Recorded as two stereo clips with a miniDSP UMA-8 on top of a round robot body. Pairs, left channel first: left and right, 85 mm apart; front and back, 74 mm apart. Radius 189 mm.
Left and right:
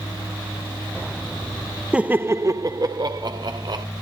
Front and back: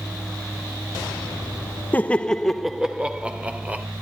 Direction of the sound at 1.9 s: 30° right.